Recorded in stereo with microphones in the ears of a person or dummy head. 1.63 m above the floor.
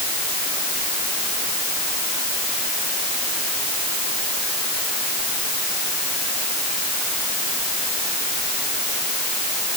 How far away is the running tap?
I don't hear a running tap.